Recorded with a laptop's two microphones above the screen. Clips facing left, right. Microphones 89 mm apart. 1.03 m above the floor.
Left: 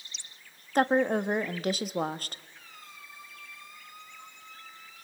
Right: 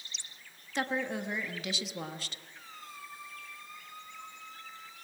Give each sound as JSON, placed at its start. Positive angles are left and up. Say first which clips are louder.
{"t": 0.8, "sound": "a woman speaking", "louder": "left 9 dB", "side_deg": 50, "distance_m": 1.5}
{"t": 2.5, "sound": "a squeak", "louder": "right 3 dB", "side_deg": -35, "distance_m": 3.5}